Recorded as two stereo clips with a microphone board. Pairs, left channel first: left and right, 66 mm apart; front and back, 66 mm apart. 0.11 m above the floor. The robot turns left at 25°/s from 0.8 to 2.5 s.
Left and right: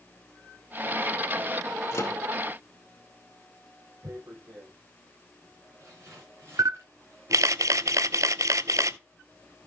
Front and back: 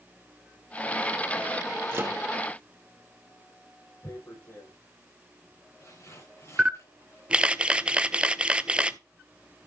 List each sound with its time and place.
1.9 s a microwave: 130° left, 2 m; by 2.2 s 125° left, 2 m
4.0 s tearing paper: 40° right, 8.5 m
6.6 s a camera shutter: 105° right, 0.6 m